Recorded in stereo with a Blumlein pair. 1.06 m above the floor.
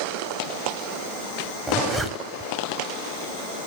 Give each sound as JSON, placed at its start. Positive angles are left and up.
{"t": 1.7, "sound": "a zipper", "azimuth_deg": -5, "distance_m": 1.6}